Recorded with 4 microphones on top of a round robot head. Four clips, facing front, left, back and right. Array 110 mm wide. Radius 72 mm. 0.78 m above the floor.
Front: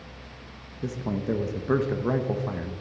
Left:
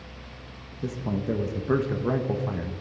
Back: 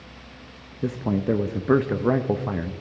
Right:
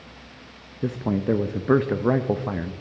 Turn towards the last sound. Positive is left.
turn(degrees=-125)